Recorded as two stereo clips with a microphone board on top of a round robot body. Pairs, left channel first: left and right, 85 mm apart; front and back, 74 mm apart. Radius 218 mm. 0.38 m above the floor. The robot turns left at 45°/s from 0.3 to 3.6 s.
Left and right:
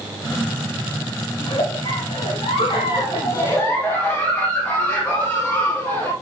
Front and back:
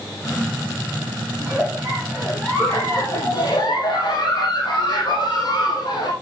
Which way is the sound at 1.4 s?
120° left.